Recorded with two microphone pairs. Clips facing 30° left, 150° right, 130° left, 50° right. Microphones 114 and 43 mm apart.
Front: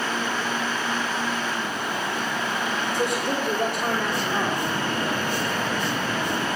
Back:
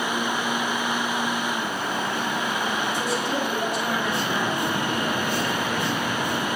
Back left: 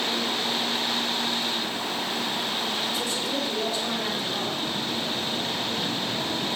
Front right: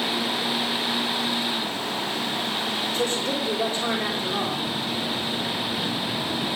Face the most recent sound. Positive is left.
turn(degrees=-10)